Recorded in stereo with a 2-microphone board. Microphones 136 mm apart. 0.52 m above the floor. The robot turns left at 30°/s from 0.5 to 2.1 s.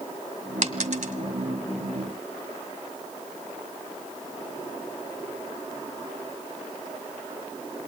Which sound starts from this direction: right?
A dropped coin, at 0.6 s.